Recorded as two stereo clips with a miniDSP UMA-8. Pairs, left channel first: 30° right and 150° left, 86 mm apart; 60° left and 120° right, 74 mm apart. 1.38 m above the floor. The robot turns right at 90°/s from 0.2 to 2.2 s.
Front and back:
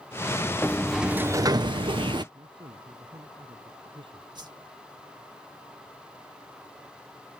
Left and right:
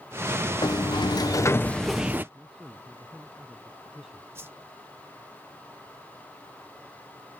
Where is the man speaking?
160° left.